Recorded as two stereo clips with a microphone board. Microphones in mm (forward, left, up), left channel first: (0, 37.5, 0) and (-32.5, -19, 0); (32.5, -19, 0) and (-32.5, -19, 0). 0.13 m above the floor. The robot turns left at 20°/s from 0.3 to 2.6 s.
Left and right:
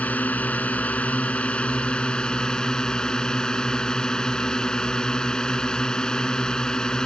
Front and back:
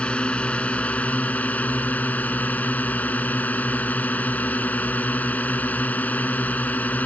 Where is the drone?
45° left; by 7.1 s straight ahead.